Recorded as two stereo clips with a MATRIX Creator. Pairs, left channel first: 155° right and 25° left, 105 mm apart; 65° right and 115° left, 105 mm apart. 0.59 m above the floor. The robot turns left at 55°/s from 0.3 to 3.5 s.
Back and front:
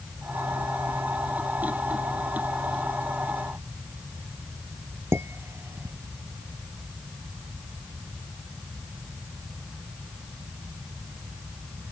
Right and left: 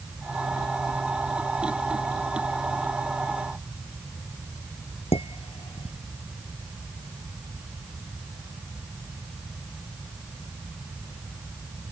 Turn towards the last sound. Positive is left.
turn(degrees=-45)